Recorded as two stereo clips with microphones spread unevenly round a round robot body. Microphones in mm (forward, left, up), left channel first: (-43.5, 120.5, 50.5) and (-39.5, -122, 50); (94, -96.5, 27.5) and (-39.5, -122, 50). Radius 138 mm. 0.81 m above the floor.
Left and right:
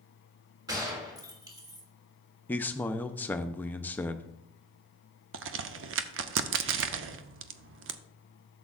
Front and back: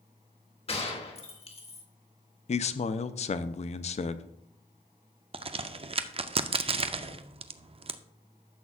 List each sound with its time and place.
0.7 s a gunshot: 15° right, 1.5 m
2.5 s a man speaking: 10° left, 0.5 m
5.3 s a crack: 125° right, 0.6 m